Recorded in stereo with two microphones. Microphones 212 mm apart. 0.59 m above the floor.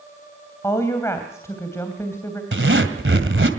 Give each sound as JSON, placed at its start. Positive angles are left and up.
{"t": 0.6, "sound": "a woman speaking", "side_deg": 15, "distance_m": 3.0}
{"t": 2.5, "sound": "a zipper", "side_deg": -70, "distance_m": 2.0}